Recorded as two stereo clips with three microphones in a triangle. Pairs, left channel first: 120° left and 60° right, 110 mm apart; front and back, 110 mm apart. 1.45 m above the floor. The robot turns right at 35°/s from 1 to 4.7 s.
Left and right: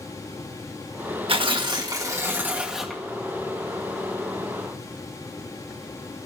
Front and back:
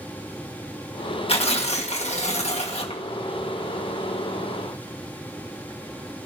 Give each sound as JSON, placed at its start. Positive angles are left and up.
{"t": 1.3, "sound": "tearing paper", "azimuth_deg": -30, "distance_m": 1.4}